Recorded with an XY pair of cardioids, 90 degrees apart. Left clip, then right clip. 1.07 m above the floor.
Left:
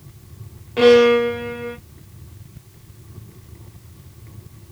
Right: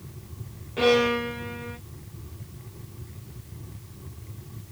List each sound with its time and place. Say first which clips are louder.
0.8 s a violin: left 10 dB; 65° left, 1.3 m